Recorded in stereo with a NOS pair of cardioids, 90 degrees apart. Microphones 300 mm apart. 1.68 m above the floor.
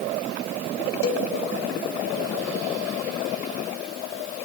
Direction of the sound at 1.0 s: 50° left.